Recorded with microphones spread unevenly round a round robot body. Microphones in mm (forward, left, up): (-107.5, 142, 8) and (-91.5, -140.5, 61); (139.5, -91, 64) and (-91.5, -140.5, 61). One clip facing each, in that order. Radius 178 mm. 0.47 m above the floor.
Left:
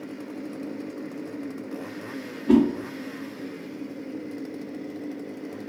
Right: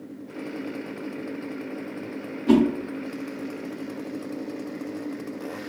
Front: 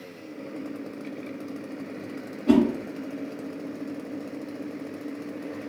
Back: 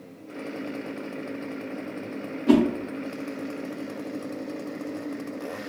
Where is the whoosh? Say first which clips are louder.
Even, even; 60° right, 1.4 m.